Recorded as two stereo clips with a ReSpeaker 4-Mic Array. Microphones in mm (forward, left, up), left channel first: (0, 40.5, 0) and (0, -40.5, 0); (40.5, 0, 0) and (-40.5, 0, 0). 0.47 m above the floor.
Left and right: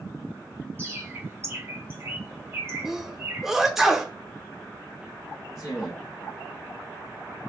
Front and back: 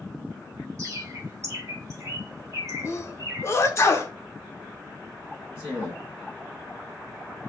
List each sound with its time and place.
0.8 s a bird: 140° right, 1.2 m
2.9 s a sneeze: 10° right, 0.8 m
5.5 s a man speaking: 55° left, 3.5 m